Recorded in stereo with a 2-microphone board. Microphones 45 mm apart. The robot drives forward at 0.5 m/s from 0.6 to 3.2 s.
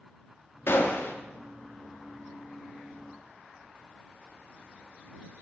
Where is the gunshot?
55° left (ahead or behind), 0.7 m; by 1.1 s 65° left (ahead or behind), 0.6 m.